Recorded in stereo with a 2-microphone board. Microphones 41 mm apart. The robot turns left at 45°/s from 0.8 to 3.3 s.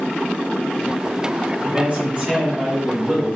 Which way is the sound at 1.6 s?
120° right.